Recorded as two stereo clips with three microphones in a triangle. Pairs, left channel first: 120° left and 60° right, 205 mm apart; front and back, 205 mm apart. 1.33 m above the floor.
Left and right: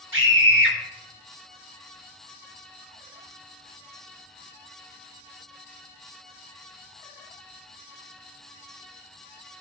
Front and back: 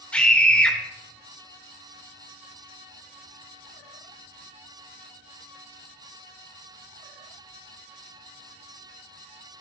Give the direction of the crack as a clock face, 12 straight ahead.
I don't hear a crack.